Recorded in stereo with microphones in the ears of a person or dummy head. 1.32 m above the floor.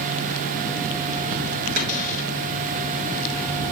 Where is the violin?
I don't hear a violin.